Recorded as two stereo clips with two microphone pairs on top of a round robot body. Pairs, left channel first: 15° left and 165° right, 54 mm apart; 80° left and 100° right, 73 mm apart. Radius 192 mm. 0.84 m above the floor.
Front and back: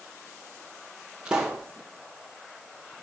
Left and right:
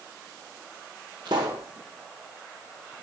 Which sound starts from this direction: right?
A pop, at 1.2 s.